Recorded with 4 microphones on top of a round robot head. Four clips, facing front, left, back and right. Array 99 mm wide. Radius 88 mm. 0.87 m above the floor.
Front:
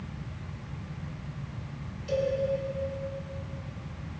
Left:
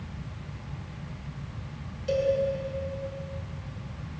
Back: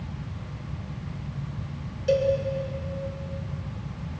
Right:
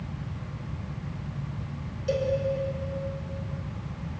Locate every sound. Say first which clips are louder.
2.1 s a cowbell: left 2 dB, back 6 dB; 170° right, 3.5 m